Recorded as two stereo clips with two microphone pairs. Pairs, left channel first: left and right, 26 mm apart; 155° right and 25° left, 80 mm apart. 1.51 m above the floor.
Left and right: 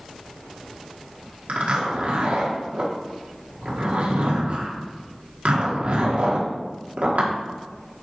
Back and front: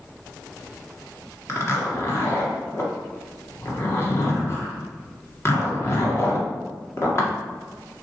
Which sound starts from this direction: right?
A zipper, at 1.5 s.